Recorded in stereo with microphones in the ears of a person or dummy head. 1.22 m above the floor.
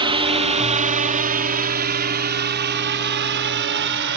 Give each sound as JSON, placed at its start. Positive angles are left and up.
{"t": 0.0, "sound": "a drone", "side_deg": -30}